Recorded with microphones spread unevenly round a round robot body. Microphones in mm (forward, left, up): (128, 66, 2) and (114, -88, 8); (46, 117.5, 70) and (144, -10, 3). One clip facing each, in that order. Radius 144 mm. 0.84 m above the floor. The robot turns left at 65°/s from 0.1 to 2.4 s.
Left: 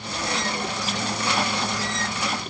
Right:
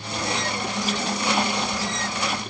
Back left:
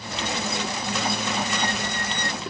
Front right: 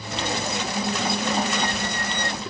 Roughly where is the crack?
No crack in this recording.